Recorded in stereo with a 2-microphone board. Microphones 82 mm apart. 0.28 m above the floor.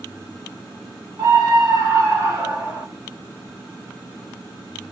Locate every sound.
1.2 s a scream: 45° right (ahead or behind), 1.7 m; by 2.9 s 30° right (ahead or behind), 1.0 m